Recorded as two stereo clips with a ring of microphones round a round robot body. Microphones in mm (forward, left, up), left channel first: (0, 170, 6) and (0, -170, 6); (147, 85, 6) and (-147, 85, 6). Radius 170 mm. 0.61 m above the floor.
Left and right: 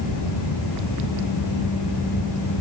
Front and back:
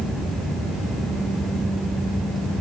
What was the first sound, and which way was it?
Only background noise.